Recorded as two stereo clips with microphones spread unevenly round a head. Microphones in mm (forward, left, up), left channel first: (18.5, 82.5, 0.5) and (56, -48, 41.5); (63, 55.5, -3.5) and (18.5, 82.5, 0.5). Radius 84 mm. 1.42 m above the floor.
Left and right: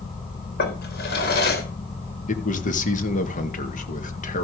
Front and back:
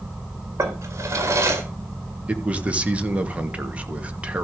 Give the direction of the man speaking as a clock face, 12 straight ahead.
9 o'clock.